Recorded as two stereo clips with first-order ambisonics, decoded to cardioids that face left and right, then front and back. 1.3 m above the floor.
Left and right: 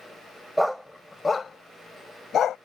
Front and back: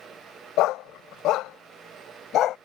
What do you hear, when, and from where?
0.6 s a dog barking: straight ahead; by 2.6 s 40° left